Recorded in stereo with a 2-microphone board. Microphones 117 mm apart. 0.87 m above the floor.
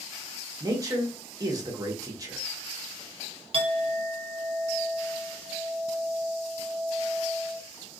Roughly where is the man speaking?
Right.